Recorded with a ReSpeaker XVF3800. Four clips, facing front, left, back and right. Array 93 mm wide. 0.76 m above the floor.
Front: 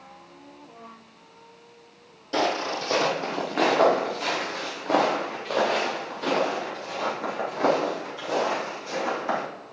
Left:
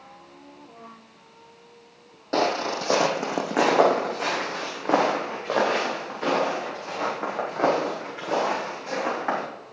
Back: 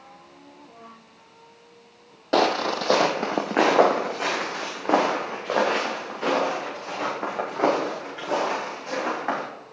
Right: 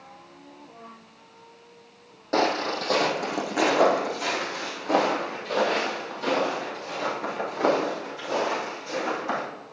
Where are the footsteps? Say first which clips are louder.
Even, back 4 dB; straight behind, 1.2 m; by 9.4 s 135° left, 6.5 m.